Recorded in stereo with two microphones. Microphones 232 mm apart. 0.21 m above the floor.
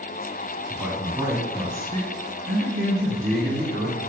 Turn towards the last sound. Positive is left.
turn(degrees=-45)  # may be behind; listen again after turning